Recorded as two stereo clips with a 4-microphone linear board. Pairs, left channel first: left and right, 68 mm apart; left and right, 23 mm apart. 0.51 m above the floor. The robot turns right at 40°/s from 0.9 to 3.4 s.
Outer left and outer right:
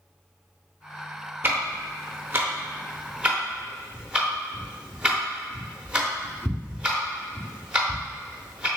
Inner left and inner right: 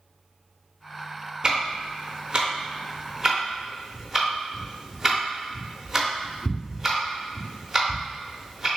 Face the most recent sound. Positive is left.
turn(degrees=-15)  # may be behind; listen again after turning